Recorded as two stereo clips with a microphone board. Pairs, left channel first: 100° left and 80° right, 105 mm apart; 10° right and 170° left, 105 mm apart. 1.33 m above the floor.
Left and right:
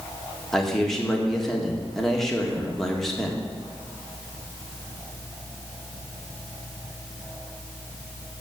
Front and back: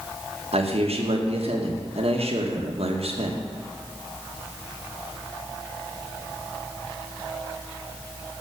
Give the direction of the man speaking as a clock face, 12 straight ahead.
6 o'clock.